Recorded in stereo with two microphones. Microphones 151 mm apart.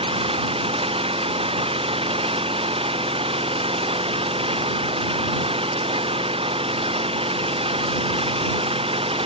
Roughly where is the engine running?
Right.